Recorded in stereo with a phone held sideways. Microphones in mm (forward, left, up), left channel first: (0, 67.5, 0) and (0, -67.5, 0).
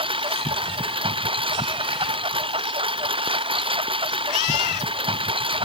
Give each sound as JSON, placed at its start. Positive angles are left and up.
{"t": 0.0, "sound": "a lawn mower", "side_deg": -40}